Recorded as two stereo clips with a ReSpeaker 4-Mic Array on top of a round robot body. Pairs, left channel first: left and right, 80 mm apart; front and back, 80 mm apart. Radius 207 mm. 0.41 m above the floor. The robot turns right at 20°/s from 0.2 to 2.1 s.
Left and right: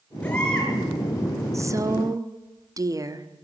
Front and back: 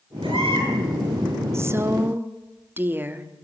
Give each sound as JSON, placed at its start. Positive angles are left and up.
{"t": 0.2, "sound": "a baby crying", "azimuth_deg": 165, "distance_m": 7.5}
{"t": 1.5, "sound": "a woman speaking", "azimuth_deg": -130, "distance_m": 1.7}